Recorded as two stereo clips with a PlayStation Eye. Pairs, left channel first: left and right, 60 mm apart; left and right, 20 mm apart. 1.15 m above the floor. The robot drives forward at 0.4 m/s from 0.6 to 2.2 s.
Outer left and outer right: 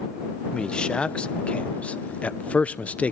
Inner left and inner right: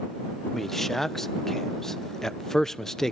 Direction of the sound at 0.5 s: 15° left (ahead or behind).